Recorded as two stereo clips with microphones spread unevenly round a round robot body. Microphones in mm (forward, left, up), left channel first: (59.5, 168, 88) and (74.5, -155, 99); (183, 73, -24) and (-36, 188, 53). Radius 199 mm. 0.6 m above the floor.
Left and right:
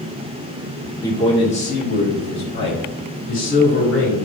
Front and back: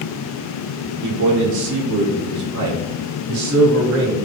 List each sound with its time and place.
1.0 s a man speaking: 170° left, 1.6 m; by 4.2 s 145° left, 4 m